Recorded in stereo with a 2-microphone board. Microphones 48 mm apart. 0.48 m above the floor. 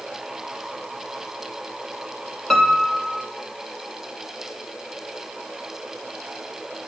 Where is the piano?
5° left (ahead or behind), 3 m.